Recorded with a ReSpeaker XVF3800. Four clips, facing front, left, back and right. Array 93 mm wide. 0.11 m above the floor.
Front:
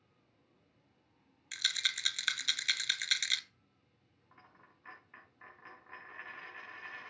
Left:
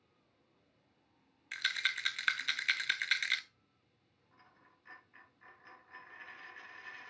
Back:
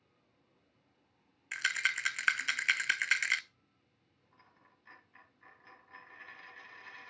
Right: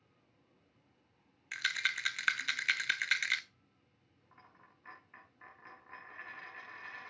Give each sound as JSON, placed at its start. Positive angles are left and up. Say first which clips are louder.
{"t": 1.5, "sound": "a rattle", "louder": "right 1 dB, back 6 dB", "azimuth_deg": -170, "distance_m": 0.6}
{"t": 4.3, "sound": "a dropped coin", "louder": "right 3 dB, front 4 dB", "azimuth_deg": -40, "distance_m": 4.5}